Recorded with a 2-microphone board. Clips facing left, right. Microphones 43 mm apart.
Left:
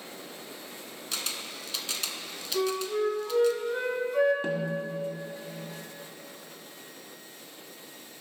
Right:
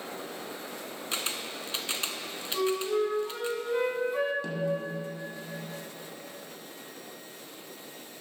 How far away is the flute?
About 1.5 m.